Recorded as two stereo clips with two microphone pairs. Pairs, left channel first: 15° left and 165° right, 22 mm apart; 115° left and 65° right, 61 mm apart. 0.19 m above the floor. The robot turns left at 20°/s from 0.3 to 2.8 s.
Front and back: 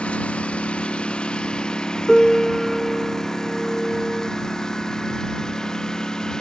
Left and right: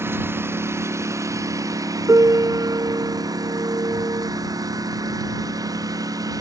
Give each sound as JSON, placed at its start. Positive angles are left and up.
{"t": 0.0, "sound": "a lawn mower", "azimuth_deg": -15}
{"t": 2.1, "sound": "a piano", "azimuth_deg": -55}